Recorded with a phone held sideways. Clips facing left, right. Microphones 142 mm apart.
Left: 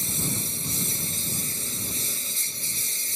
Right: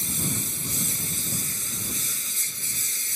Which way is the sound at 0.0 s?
30° left (ahead or behind).